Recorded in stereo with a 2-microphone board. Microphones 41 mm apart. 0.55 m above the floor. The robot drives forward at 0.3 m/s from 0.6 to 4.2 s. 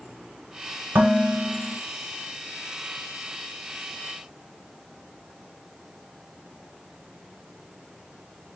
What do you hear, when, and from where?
0.9 s dishes clattering: 65° right (ahead or behind), 1.4 m; by 1.8 s 70° right (ahead or behind), 1.3 m